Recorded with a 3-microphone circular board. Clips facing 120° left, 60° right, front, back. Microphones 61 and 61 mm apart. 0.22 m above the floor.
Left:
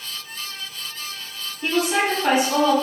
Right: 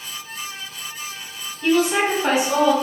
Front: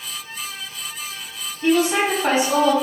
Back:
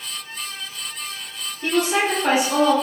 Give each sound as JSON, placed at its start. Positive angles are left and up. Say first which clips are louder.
{"t": 1.6, "sound": "a woman speaking", "louder": "right 3 dB, front 2 dB", "azimuth_deg": 85, "distance_m": 1.0}